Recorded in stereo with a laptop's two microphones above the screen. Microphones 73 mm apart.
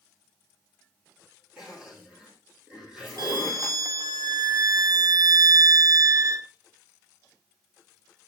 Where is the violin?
55° right (ahead or behind), 0.6 m.